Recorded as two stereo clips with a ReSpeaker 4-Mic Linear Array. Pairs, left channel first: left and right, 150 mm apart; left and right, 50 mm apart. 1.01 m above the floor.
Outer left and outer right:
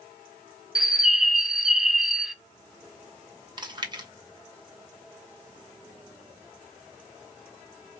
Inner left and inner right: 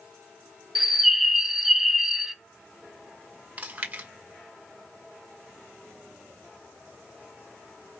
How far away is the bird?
About 1.0 m.